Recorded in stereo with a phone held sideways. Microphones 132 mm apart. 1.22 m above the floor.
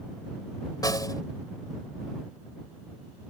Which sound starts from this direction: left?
A snare drum, at 0.8 s.